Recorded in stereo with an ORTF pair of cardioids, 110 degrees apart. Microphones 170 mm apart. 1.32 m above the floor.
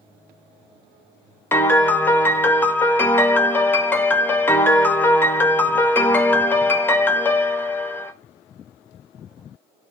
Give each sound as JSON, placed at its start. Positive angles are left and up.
{"t": 1.5, "sound": "a piano", "azimuth_deg": 10, "distance_m": 0.6}